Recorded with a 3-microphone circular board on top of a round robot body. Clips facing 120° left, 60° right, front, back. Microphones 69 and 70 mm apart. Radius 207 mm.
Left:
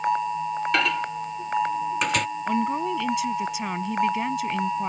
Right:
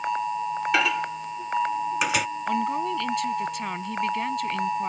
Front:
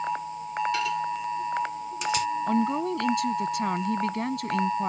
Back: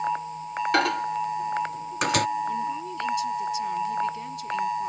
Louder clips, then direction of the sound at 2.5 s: Left 1 dB, front 4 dB; 35° left.